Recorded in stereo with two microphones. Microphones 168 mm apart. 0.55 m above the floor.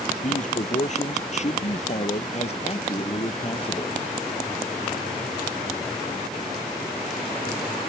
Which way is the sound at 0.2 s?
45° left (ahead or behind).